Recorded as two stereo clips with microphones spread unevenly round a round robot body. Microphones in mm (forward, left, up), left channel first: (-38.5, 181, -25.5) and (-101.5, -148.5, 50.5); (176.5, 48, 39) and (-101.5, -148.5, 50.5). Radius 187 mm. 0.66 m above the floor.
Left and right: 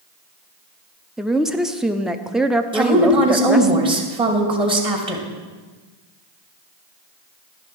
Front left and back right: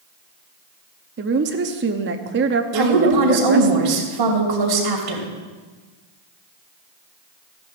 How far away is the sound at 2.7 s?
About 3 m.